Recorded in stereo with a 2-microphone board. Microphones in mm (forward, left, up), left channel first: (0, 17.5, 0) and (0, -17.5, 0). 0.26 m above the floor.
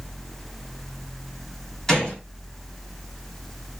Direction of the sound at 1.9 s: 15° left (ahead or behind).